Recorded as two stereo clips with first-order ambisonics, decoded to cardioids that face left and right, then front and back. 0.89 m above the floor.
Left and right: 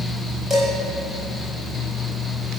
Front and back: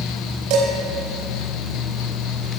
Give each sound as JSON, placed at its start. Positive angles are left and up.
{"t": 0.5, "sound": "dishes clattering", "azimuth_deg": 180, "distance_m": 2.5}